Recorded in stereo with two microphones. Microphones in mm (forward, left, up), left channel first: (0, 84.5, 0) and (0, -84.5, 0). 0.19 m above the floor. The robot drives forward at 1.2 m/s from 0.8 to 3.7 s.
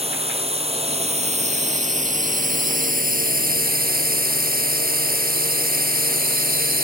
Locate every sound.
0.0 s a drone: 40° right (ahead or behind); by 6.8 s 65° right (ahead or behind)